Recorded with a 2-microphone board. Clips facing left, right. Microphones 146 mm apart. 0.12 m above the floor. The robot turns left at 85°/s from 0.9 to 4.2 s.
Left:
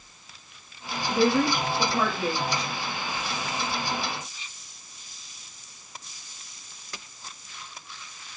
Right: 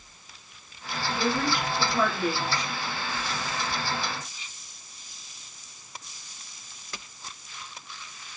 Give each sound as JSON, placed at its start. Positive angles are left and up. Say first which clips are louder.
{"t": 1.1, "sound": "a woman speaking", "louder": "left 6 dB", "azimuth_deg": 105, "distance_m": 3.0}